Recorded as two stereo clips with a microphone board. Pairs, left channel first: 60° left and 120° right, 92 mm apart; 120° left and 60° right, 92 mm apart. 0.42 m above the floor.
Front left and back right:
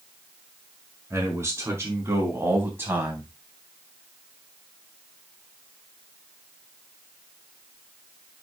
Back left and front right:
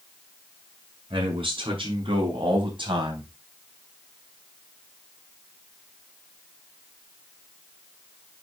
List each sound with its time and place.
1.1 s a man speaking: 60° right, 5.5 m; by 3.3 s 55° right, 3 m